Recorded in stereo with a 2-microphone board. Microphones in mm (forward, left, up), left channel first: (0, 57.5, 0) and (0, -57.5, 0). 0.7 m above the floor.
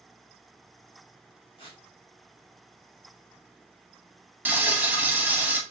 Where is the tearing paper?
50° left (ahead or behind), 1.2 m.